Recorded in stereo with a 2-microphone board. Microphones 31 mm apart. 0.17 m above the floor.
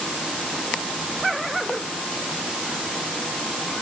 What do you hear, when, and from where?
Only background noise.